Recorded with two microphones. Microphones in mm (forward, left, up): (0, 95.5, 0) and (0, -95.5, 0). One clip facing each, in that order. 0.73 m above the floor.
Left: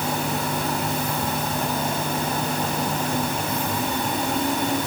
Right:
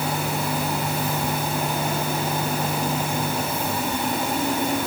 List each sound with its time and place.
Only background noise.